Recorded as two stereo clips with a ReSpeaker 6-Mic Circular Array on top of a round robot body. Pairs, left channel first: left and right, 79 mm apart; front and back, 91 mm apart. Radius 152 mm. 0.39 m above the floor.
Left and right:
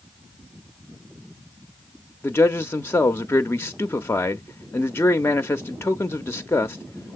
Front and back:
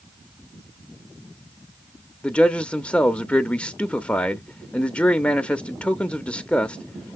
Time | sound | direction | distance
2.2 | a man speaking | 65° left | 0.8 m